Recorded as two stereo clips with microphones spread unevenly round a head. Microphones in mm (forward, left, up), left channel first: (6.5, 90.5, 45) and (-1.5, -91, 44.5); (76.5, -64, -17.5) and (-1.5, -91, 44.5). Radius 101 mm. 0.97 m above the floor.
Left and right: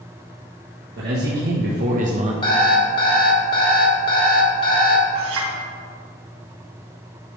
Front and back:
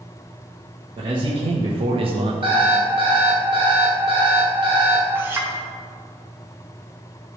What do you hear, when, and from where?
1.0 s a man speaking: 115° right, 1.4 m
2.4 s an alarm clock: 150° left, 1.4 m
5.2 s a clink: 105° right, 2 m